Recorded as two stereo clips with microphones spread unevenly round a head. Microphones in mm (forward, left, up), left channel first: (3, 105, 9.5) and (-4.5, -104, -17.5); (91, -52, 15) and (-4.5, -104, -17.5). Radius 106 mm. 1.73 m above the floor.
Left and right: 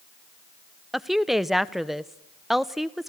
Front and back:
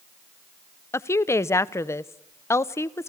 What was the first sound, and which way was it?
A woman speaking, 5° left.